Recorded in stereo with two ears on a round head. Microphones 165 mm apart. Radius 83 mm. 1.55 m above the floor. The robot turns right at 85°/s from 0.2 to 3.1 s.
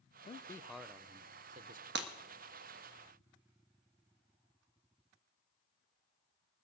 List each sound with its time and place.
0.2 s a man speaking: 135° left, 0.6 m; by 1.9 s 85° right, 0.6 m
1.9 s breaking glass: 65° right (ahead or behind), 1.3 m; by 2.1 s 60° right (ahead or behind), 1.3 m